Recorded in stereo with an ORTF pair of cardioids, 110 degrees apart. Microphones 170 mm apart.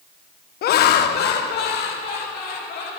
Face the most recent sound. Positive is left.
turn(degrees=75)